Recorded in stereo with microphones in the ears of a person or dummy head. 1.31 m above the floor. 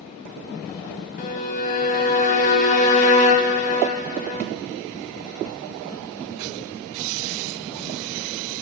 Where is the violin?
40° left (ahead or behind), 0.7 m.